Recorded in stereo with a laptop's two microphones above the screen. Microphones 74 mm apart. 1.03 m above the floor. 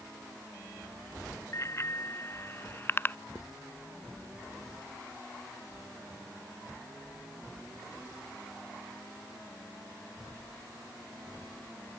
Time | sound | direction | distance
1.5 | a bicycle bell | 40° left (ahead or behind) | ?
3.4 | writing | 50° left (ahead or behind) | ?